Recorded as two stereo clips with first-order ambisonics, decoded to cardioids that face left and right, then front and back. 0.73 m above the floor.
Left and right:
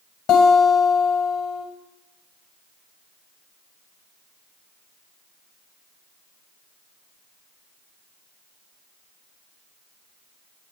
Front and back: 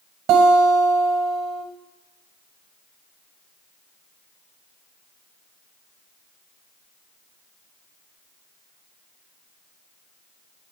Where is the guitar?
135° left, 1.7 m.